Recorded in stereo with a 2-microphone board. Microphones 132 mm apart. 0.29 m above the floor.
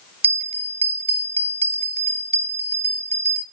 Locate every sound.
0.2 s a bell: 45° right (ahead or behind), 0.9 m